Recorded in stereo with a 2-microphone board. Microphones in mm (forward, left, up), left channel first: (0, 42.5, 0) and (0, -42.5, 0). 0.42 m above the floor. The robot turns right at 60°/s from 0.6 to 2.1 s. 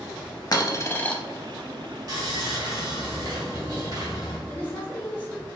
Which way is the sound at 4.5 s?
20° left (ahead or behind).